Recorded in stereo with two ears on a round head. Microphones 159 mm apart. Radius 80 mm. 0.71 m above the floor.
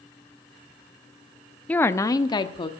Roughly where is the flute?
No flute in this recording.